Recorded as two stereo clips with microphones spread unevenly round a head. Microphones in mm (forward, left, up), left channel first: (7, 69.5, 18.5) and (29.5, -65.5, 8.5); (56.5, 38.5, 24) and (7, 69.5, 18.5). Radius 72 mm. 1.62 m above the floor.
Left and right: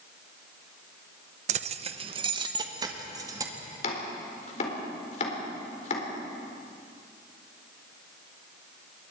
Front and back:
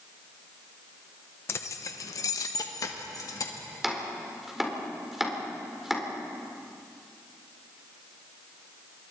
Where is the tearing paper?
No tearing paper in this recording.